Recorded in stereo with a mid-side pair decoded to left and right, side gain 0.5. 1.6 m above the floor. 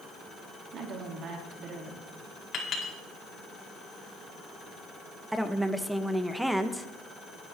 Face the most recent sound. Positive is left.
turn(degrees=-10)